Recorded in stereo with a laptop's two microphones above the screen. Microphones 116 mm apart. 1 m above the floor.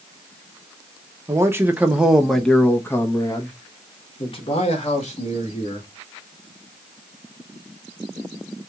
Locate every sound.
1.3 s a man speaking: 25° right (ahead or behind), 1.2 m; by 5.9 s 65° left (ahead or behind), 2 m